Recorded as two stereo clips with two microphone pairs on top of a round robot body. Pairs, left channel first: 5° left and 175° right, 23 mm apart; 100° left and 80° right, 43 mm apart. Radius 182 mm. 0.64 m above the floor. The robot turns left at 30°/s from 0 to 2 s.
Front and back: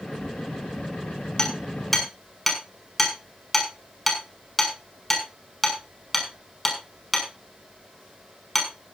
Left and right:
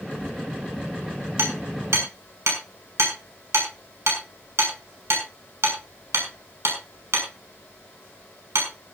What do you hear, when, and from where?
1.4 s hammering: 60° right, 6 m; by 8.7 s 75° right, 6 m